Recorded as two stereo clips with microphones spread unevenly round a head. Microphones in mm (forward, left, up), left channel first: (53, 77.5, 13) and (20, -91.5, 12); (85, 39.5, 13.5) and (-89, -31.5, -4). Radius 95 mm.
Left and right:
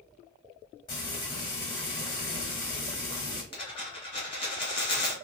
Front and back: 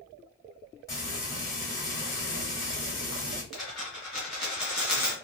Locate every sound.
0.9 s frying: 55° left, 1.4 m
3.5 s a dropped coin: 105° left, 1.6 m